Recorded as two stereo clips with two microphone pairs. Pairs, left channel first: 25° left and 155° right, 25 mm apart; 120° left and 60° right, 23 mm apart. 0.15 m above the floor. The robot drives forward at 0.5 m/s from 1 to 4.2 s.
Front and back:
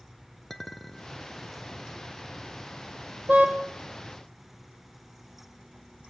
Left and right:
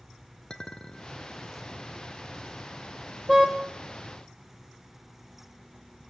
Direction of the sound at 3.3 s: 155° right.